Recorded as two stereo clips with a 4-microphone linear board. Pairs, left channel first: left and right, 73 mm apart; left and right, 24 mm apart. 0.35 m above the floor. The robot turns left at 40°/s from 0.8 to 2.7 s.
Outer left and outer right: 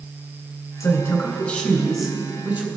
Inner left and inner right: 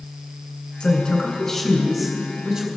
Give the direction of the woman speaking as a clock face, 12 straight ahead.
10 o'clock.